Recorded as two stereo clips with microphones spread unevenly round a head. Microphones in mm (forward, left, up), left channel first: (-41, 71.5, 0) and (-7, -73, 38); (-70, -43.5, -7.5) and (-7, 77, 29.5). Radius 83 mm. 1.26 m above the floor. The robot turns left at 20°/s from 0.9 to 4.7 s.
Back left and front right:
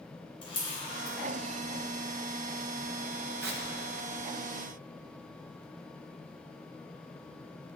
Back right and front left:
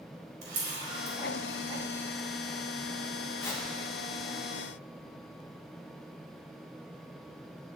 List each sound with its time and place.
0.4 s a camera shutter: 40° left, 4.5 m; by 1.2 s 35° left, 4.5 m
3.4 s tearing paper: 45° right, 1.6 m; by 3.6 s 50° right, 1.6 m